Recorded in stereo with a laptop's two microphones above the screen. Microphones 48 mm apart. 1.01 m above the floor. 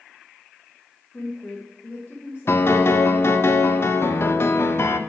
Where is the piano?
55° left (ahead or behind), 0.7 m.